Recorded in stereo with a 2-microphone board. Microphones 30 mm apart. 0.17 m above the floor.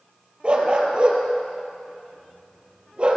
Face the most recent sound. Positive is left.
turn(degrees=-35)  # may be behind; listen again after turning